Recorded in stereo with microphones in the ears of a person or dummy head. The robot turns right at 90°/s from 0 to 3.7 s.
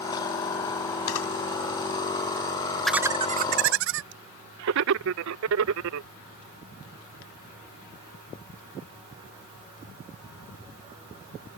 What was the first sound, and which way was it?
A camera shutter, 75° left (ahead or behind).